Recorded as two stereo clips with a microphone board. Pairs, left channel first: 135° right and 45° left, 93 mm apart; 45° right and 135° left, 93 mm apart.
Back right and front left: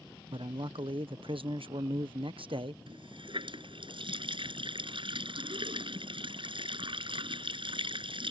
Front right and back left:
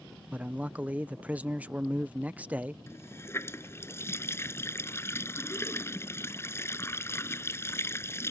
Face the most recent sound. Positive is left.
turn(degrees=20)